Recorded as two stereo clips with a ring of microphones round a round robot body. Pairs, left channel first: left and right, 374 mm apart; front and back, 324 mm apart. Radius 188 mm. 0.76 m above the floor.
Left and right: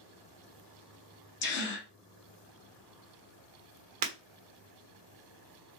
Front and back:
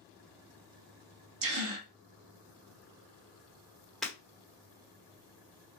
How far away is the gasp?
About 1.2 m.